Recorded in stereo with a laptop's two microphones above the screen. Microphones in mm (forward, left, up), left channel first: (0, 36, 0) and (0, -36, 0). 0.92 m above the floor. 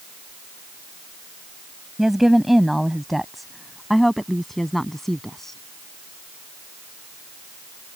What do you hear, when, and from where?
2.0 s a woman speaking: 5° right (ahead or behind); by 5.6 s 5° left (ahead or behind)